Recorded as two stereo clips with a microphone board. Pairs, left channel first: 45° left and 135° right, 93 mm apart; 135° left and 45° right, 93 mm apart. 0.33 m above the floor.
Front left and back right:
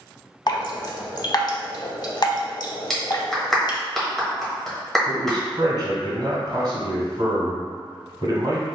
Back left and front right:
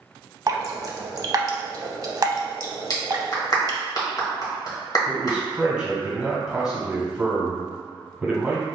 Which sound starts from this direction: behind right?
A man speaking, at 5.1 s.